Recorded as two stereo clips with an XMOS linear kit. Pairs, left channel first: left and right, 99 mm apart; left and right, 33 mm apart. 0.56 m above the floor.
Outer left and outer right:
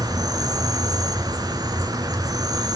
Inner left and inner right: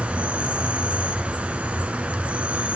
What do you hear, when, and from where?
0.0 s an insect: 40° right (ahead or behind), 1.0 m